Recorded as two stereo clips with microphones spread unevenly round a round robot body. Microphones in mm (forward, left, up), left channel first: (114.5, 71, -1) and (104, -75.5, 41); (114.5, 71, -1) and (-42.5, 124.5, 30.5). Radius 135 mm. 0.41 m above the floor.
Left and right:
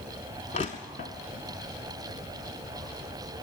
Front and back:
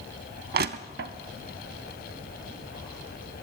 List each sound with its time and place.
0.5 s crushing: 155° left, 0.5 m